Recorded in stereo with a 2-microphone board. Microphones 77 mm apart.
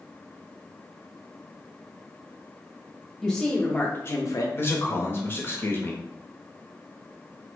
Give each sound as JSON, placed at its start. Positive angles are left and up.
{"t": 3.2, "sound": "a woman speaking", "side_deg": 5, "distance_m": 1.1}
{"t": 4.5, "sound": "a man speaking", "side_deg": 30, "distance_m": 0.8}